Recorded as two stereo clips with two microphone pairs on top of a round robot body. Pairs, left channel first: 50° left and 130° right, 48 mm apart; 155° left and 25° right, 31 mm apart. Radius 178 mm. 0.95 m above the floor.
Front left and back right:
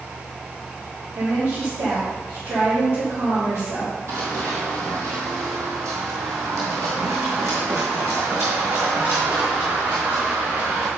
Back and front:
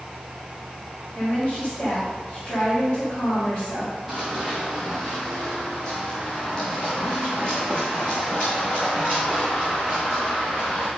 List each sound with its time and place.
1.1 s a woman speaking: 145° right, 2.5 m
4.1 s running footsteps: 120° right, 1.5 m; by 10.9 s 155° right, 4.5 m